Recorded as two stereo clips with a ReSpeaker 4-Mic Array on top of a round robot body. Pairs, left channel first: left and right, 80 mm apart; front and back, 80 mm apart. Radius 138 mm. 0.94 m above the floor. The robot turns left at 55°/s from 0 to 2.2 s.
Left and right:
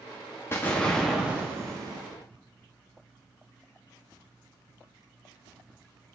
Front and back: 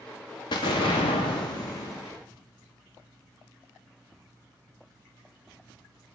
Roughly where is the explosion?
Ahead left.